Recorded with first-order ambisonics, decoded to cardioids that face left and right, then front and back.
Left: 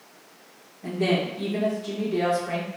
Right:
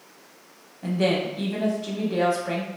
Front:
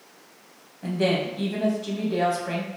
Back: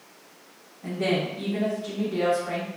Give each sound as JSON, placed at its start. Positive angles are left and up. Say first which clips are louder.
{"t": 0.8, "sound": "a woman speaking", "louder": "right 1 dB, front 2 dB", "azimuth_deg": -50, "distance_m": 1.3}